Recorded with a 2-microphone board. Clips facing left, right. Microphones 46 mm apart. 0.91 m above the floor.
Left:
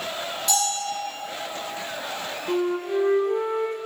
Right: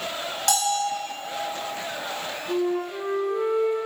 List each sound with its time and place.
0.5 s a bell: 65° right (ahead or behind), 1.4 m
2.5 s a flute: 55° left (ahead or behind), 1.0 m